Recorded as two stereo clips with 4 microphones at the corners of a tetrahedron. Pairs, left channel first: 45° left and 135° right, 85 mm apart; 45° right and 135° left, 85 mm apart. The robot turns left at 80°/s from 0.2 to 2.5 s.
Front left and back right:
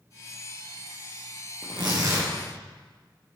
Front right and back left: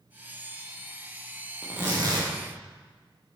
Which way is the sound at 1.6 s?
150° right.